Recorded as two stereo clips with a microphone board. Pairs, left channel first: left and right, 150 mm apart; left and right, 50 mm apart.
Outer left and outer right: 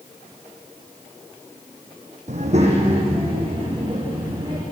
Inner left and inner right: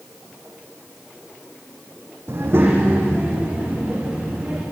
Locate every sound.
2.3 s a child speaking: 50° right (ahead or behind), 4 m; by 4.6 s 30° right (ahead or behind), 6.5 m